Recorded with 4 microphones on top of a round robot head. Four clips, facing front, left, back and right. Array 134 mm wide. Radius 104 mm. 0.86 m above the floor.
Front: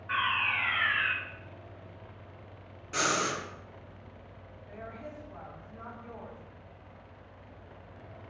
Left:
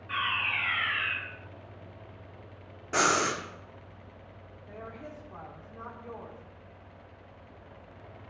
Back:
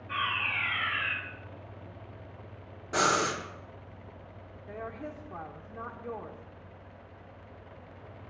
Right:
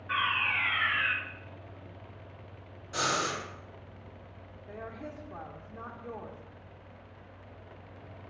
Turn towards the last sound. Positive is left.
turn(degrees=-165)